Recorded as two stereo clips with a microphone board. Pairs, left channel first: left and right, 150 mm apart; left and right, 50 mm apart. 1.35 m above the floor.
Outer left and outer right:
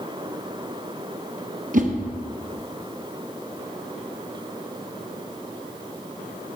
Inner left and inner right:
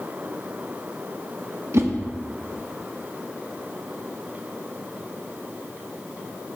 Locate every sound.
1.7 s a whoosh: 60° right (ahead or behind), 0.7 m